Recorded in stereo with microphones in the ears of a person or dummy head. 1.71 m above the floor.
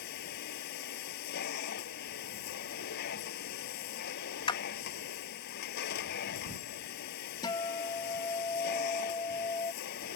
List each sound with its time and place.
0.0 s a machine running: 55° left (ahead or behind)
4.5 s a clap: 20° left (ahead or behind)
7.4 s a guitar: 25° left (ahead or behind)